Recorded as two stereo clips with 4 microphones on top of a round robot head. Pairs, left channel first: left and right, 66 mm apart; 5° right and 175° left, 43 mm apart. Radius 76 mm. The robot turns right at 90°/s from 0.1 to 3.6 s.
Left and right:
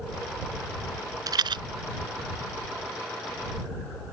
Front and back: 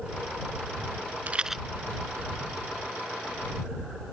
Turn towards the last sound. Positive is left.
turn(degrees=85)